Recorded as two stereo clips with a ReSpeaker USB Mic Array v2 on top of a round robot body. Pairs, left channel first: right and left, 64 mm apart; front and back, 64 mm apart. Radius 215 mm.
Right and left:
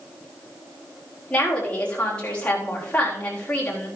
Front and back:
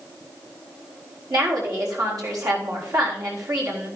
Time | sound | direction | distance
1.3 | a woman speaking | 165° right | 4 m